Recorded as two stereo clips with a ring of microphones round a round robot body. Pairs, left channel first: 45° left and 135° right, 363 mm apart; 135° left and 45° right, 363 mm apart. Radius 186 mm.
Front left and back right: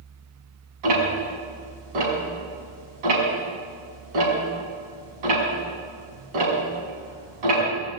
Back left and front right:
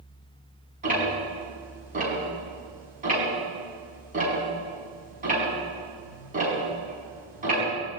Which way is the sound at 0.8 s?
115° right.